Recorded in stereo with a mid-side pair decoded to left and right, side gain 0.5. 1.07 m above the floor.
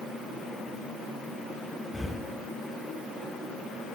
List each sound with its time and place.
1.9 s breathing: 5° left, 1.6 m